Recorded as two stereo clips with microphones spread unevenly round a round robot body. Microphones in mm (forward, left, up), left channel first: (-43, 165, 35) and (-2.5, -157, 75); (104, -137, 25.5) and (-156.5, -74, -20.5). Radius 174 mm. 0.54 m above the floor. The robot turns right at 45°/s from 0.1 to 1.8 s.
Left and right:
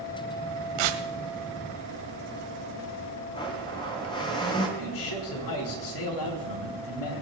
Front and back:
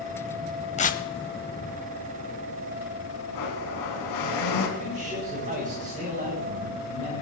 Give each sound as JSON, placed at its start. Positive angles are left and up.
{"t": 0.8, "sound": "tearing paper", "azimuth_deg": -80, "distance_m": 1.2}
{"t": 3.3, "sound": "a blender", "azimuth_deg": 20, "distance_m": 2.5}
{"t": 4.8, "sound": "a man speaking", "azimuth_deg": 100, "distance_m": 4.0}